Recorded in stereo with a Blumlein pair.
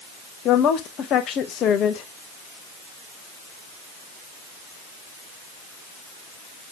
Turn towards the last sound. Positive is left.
turn(degrees=30)